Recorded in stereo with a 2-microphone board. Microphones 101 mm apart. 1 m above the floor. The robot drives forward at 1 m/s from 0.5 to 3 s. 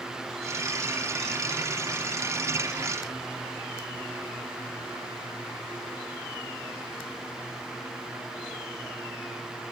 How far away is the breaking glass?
I don't hear breaking glass.